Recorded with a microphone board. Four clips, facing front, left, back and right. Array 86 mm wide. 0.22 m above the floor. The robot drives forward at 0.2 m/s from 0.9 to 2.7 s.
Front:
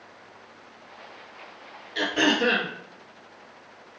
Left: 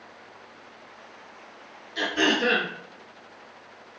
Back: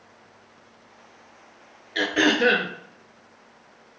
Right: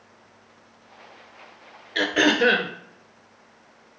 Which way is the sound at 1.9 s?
120° right.